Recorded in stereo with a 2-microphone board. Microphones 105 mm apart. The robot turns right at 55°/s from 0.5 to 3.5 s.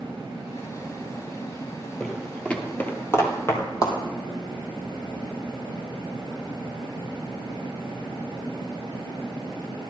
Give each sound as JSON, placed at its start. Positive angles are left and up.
{"t": 2.0, "sound": "footsteps", "side_deg": 10, "distance_m": 1.9}